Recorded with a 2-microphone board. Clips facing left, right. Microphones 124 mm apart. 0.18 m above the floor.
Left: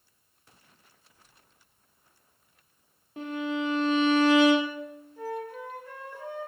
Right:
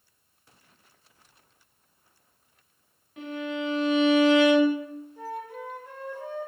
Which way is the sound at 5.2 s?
20° right (ahead or behind).